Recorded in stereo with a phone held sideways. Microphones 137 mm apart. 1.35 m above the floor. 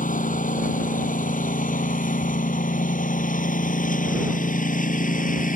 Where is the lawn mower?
75° left (ahead or behind); by 5.6 s 80° left.